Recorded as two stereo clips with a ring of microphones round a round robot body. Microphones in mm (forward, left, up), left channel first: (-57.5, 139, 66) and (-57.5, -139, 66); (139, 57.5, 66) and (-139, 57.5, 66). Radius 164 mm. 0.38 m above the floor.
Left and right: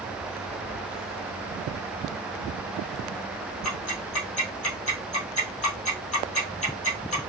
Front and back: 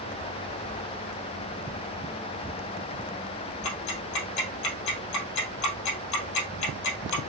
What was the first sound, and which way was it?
Ticking, 20° left.